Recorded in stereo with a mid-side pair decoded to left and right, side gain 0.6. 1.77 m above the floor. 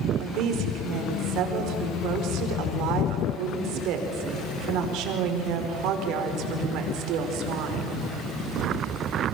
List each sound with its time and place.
0.2 s a woman speaking: 70° right, 4.5 m